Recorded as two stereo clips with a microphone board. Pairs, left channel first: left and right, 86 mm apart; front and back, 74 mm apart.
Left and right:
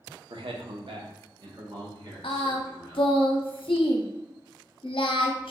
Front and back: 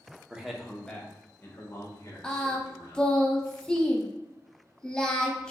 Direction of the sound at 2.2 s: 80° left.